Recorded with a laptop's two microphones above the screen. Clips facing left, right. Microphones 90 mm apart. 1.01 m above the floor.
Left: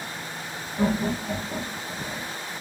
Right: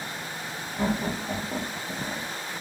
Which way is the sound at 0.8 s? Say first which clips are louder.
Left 3 dB; 10° left (ahead or behind).